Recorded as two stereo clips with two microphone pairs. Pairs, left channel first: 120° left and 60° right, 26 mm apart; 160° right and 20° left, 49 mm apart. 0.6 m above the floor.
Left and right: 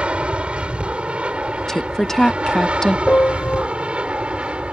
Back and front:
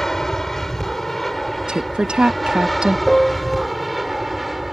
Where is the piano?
120° left.